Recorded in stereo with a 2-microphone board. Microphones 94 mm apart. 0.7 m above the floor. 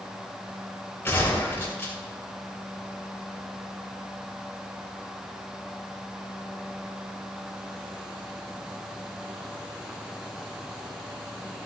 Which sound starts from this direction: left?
A gunshot, at 1.1 s.